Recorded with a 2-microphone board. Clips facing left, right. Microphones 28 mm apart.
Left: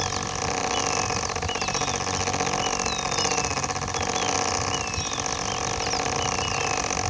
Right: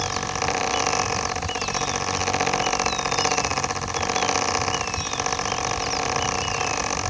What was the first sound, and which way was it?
Only background noise.